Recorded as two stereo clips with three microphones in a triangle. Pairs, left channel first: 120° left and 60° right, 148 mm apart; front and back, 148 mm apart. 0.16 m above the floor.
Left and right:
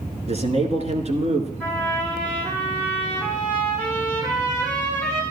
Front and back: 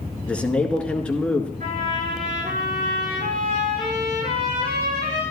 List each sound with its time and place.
0.3 s a man speaking: 80° right, 1.8 m
1.6 s a trumpet: 160° right, 8.5 m